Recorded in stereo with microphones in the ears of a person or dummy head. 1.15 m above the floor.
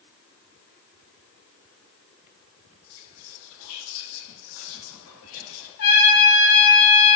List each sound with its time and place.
2.9 s whispering: 65° left (ahead or behind), 0.8 m
5.8 s a trumpet: 55° left (ahead or behind), 0.8 m